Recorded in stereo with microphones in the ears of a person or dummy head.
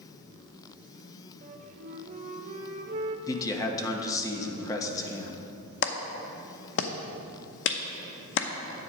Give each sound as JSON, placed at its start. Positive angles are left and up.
{"t": 1.4, "sound": "a flute", "side_deg": -35, "distance_m": 0.8}
{"t": 3.3, "sound": "a man speaking", "side_deg": 20, "distance_m": 1.2}
{"t": 5.8, "sound": "a clap", "side_deg": 65, "distance_m": 0.7}